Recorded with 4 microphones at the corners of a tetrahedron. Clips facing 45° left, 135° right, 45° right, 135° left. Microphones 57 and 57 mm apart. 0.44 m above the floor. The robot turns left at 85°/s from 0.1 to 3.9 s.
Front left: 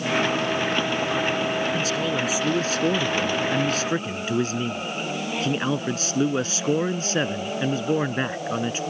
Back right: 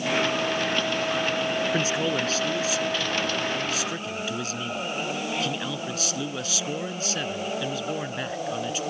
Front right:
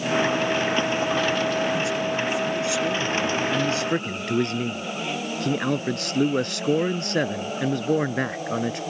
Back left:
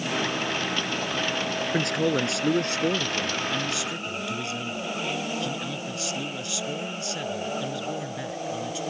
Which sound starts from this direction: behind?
A man speaking, at 1.7 s.